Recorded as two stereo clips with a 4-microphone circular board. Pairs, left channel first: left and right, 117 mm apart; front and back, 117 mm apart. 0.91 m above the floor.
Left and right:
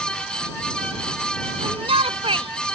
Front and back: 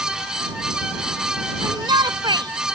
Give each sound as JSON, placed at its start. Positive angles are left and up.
{"t": 1.6, "sound": "a shout", "azimuth_deg": -130}